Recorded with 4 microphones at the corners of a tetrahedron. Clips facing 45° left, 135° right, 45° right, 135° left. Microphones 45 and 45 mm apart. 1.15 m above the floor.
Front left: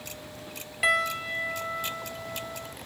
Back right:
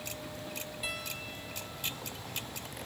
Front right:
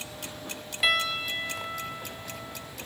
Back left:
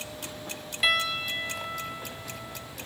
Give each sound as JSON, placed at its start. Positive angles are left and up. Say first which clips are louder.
{"t": 0.8, "sound": "a piano", "louder": "front left 17 dB, even", "azimuth_deg": 45}